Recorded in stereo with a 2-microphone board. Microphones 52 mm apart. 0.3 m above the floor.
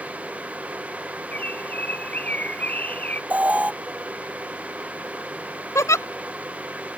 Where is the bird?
30° left (ahead or behind).